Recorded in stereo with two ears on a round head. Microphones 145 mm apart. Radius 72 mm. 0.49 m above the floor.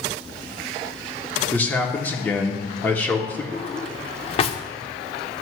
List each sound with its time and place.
1.5 s a man speaking: 10° left (ahead or behind), 1.0 m
3.5 s a drawer: 35° left (ahead or behind), 0.6 m